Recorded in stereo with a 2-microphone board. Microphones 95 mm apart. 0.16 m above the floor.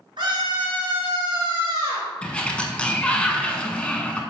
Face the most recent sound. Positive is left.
turn(degrees=15)  # may be behind; listen again after turning